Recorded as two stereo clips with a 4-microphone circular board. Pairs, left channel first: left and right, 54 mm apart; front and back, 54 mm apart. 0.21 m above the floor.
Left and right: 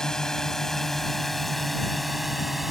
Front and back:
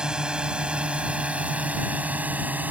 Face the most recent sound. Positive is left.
turn(degrees=-175)